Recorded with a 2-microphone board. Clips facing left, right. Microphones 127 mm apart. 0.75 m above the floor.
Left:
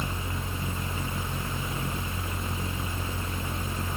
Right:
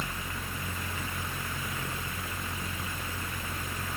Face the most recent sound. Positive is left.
No sound to turn to.